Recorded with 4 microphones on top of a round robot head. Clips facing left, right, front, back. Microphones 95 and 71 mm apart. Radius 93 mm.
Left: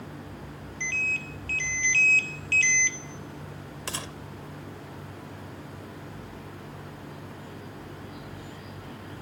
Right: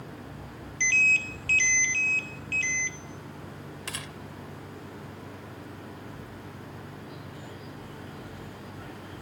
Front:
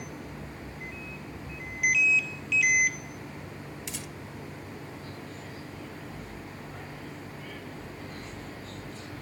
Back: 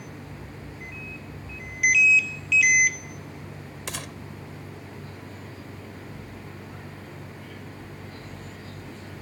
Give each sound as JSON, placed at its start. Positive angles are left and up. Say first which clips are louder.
{"t": 3.9, "sound": "a gunshot", "louder": "left 5 dB, back 4 dB", "azimuth_deg": 150}